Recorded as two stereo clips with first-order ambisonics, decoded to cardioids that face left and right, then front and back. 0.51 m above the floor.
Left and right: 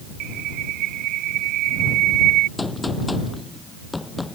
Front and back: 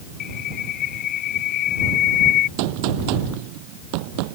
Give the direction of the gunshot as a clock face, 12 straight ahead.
6 o'clock.